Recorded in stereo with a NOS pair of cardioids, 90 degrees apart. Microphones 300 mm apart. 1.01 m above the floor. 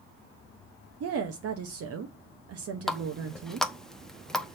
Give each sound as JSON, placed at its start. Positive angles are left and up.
{"t": 1.0, "sound": "a woman speaking", "azimuth_deg": -60, "distance_m": 1.1}
{"t": 2.9, "sound": "a running tap", "azimuth_deg": 0, "distance_m": 0.7}